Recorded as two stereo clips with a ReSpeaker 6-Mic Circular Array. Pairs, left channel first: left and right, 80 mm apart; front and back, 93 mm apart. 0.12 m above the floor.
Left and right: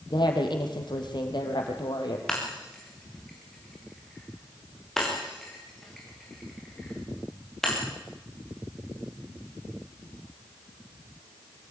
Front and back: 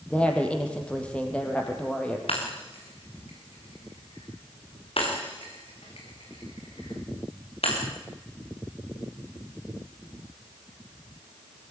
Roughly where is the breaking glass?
Ahead.